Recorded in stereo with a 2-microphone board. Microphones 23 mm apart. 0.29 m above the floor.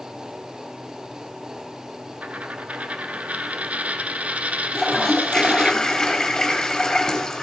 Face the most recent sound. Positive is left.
turn(degrees=25)  # may be behind; listen again after turning